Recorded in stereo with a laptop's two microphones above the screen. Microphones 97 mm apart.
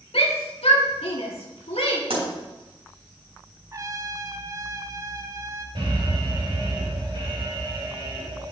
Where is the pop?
75° right (ahead or behind), 4 m.